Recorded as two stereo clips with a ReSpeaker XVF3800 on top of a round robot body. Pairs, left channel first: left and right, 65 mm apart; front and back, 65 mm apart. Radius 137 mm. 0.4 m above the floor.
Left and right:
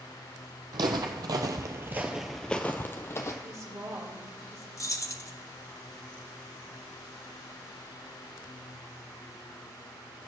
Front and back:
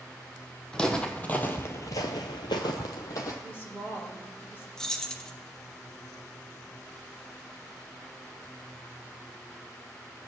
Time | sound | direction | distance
0.7 | footsteps | 80° right | 1.0 m
3.4 | a woman speaking | 55° right | 3 m
4.8 | keys jangling | 75° left | 1.1 m